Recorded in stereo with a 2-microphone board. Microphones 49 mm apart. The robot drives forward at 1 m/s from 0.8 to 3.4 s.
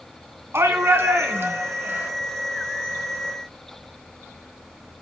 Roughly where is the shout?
Right.